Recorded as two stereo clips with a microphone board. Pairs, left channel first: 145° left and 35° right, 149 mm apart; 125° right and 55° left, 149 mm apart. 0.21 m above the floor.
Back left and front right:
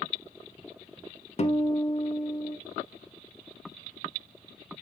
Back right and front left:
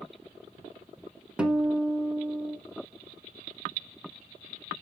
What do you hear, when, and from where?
1.4 s a guitar: 135° left, 0.9 m